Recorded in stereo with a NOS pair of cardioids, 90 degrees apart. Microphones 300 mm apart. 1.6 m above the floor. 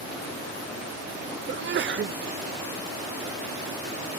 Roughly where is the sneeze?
Ahead right.